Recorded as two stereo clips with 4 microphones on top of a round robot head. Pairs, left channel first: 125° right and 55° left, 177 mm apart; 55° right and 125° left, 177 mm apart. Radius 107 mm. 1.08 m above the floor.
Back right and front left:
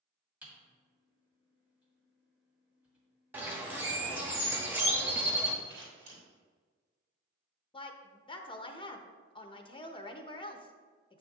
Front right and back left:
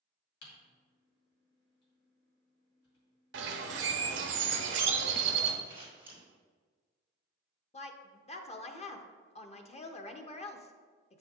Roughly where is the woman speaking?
Right.